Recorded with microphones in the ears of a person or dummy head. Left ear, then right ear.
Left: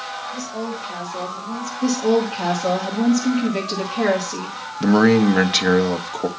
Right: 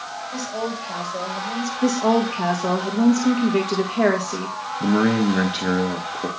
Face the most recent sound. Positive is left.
turn(degrees=30)  # may be behind; listen again after turning